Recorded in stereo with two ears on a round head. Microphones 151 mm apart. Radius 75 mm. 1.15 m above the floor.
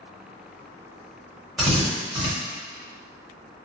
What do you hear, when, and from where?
1.6 s a drill: centre (ahead or behind), 1.6 m